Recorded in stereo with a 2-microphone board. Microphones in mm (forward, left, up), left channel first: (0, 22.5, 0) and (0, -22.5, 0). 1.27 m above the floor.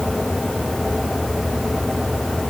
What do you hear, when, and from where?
Only background noise.